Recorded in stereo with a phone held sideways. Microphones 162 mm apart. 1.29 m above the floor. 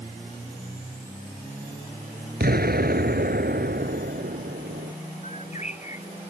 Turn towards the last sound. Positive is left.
turn(degrees=45)  # may be behind; listen again after turning